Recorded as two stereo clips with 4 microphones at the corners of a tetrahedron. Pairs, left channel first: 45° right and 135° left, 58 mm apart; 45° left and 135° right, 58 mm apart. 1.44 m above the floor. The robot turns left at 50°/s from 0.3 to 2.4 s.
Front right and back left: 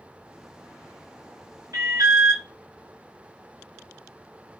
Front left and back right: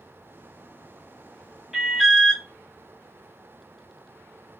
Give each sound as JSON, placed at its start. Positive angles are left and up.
{"t": 1.7, "sound": "an alarm", "azimuth_deg": 140, "distance_m": 1.4}